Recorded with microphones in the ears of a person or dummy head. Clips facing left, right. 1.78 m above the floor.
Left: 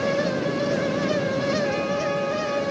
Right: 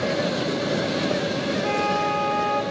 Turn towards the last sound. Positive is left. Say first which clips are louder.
# even
turn(degrees=-65)  # may be behind; listen again after turning